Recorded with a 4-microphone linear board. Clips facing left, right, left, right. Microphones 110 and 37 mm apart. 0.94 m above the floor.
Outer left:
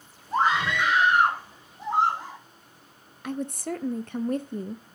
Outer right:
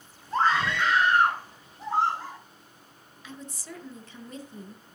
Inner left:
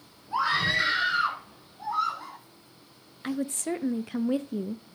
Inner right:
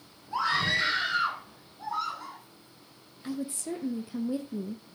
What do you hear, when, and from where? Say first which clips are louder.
0.3 s a scream: outer left 1 dB, inner left 2 dB; 15° left (ahead or behind), 3.5 m
3.2 s a woman speaking: outer left 12 dB, inner left 4 dB; 55° left (ahead or behind), 0.6 m